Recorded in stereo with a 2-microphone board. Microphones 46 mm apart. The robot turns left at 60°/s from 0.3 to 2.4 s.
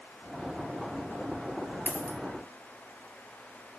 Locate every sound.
1.9 s a dropped coin: 40° left (ahead or behind), 0.5 m; by 2.2 s 60° left (ahead or behind), 0.5 m